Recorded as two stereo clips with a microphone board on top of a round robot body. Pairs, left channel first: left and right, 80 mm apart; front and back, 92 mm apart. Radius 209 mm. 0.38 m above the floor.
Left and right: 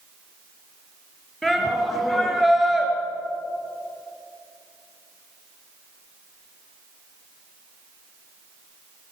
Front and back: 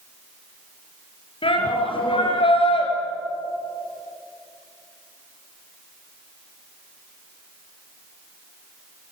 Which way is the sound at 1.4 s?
5° left.